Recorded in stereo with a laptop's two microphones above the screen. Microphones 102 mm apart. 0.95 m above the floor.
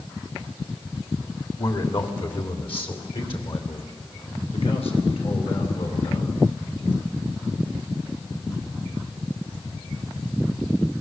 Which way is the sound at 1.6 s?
50° left (ahead or behind).